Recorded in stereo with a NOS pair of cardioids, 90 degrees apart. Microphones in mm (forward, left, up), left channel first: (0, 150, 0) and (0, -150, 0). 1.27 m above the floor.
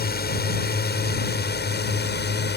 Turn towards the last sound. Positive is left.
turn(degrees=35)